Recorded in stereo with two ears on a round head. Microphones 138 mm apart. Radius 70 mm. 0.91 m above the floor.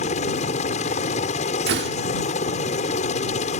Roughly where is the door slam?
Right.